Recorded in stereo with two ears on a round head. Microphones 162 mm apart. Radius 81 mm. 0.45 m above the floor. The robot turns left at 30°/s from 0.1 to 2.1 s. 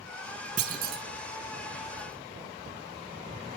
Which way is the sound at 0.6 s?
45° right (ahead or behind).